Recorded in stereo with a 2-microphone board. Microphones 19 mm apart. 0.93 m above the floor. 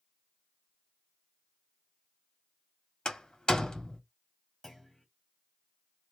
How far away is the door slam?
About 1.6 m.